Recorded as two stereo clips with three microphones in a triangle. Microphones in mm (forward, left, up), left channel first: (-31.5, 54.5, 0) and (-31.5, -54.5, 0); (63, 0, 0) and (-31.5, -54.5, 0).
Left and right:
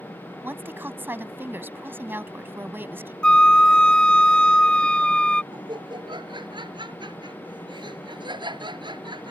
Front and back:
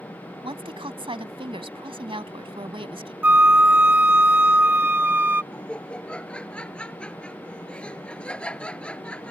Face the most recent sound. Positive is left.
turn(degrees=-50)